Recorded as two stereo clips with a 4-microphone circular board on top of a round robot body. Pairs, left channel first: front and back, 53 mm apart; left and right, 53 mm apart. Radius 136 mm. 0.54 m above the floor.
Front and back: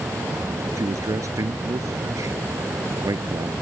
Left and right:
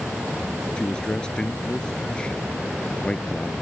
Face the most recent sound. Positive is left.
turn(degrees=165)